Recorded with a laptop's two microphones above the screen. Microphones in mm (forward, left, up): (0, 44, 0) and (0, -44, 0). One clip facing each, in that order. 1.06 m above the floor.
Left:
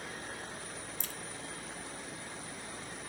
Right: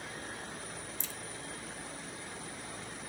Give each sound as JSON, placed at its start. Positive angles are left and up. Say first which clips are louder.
{"t": 1.0, "sound": "a crack", "louder": "even", "side_deg": 55, "distance_m": 1.2}